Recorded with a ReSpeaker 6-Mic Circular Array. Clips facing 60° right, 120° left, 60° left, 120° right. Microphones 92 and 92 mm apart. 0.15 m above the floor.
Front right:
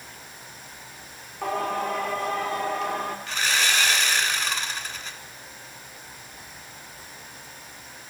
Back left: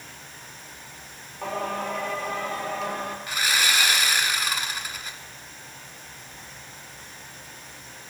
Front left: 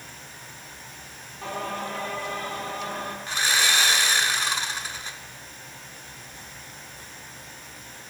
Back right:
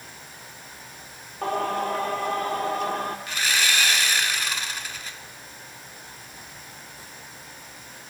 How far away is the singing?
About 2 m.